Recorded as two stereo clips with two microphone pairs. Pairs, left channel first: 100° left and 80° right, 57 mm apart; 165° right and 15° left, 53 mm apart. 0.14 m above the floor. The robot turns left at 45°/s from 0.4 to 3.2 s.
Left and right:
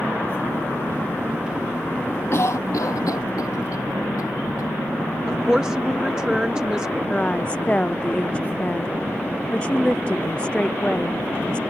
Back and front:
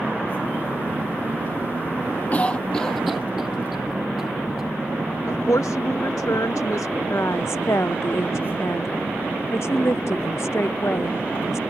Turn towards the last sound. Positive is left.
turn(degrees=170)